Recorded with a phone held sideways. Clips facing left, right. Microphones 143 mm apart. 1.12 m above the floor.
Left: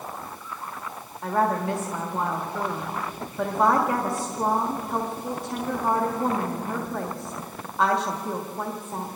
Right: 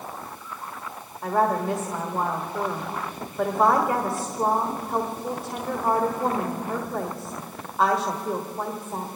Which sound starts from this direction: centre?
A woman speaking, at 1.2 s.